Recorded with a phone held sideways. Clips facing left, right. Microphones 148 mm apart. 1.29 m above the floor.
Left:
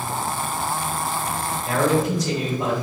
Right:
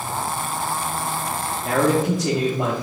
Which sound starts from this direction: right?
A man speaking, at 1.6 s.